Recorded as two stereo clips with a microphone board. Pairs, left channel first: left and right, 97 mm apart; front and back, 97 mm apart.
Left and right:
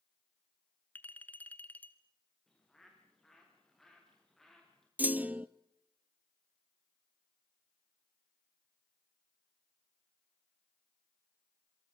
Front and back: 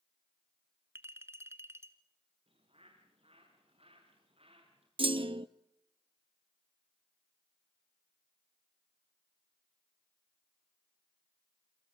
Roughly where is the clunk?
Behind.